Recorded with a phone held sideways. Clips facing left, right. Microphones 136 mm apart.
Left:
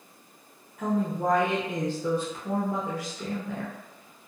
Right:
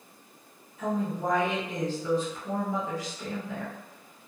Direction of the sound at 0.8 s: 55° left (ahead or behind).